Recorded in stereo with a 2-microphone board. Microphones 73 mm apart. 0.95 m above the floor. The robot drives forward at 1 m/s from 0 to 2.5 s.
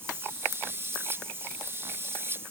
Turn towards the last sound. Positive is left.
No sound to turn to.